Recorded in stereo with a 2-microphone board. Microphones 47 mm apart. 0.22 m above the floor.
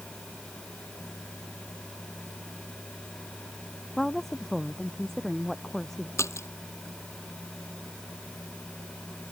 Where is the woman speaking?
5° left (ahead or behind).